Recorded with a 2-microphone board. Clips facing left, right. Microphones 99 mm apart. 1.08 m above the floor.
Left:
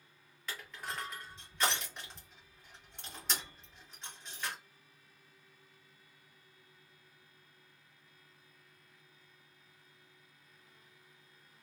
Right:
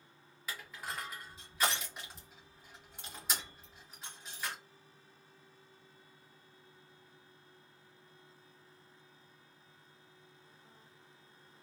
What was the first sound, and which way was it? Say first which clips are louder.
Crushing: even; 5° right (ahead or behind).